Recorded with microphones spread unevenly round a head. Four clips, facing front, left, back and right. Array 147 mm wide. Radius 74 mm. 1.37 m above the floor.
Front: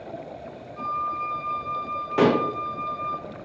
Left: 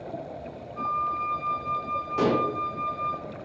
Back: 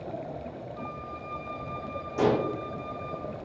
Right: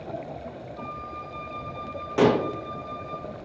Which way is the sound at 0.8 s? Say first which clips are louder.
Left 12 dB, front 10 dB; 50° left.